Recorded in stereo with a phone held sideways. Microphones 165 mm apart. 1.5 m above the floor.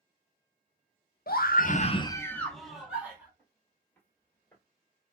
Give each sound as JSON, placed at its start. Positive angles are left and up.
{"t": 1.3, "sound": "a scream", "side_deg": 65, "distance_m": 0.7}
{"t": 3.4, "sound": "footsteps", "side_deg": 5, "distance_m": 1.8}